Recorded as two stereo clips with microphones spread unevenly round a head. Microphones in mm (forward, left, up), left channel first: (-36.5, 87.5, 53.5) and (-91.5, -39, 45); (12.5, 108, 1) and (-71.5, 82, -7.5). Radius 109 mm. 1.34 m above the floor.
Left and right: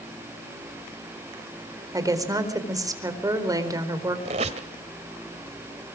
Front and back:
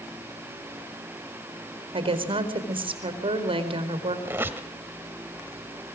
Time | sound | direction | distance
1.9 | a woman speaking | straight behind | 4.5 m
4.2 | a squeak | 100° right | 1.2 m